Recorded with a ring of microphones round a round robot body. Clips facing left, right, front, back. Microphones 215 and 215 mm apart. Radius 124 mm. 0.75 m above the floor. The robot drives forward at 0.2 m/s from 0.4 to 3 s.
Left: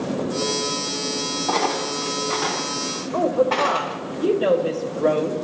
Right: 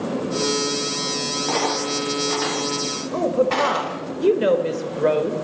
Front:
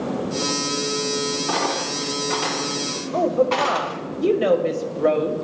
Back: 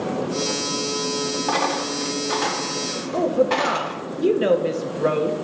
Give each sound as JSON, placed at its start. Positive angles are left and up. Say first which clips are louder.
{"t": 1.5, "sound": "a dropped coin", "louder": "right 1 dB, back 1 dB", "azimuth_deg": -150, "distance_m": 2.0}
{"t": 3.1, "sound": "a woman speaking", "louder": "even, even", "azimuth_deg": -120, "distance_m": 0.7}